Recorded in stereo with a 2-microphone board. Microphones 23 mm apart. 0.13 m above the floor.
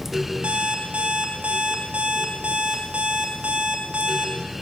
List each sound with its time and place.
0.4 s an alarm clock: 55° right (ahead or behind), 4 m